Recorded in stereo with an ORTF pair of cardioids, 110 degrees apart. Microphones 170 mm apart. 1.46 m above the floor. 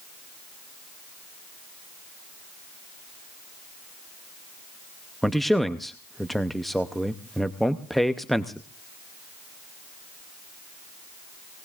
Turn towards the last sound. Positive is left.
turn(degrees=0)